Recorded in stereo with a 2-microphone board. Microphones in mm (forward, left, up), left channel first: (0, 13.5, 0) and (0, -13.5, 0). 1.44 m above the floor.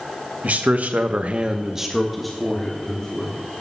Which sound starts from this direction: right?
A man speaking, at 0.4 s.